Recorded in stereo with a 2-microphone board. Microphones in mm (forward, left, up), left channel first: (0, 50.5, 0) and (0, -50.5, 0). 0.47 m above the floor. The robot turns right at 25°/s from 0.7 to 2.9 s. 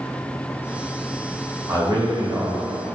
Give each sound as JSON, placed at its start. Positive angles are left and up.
{"t": 1.7, "sound": "a man speaking", "side_deg": -40, "distance_m": 1.7}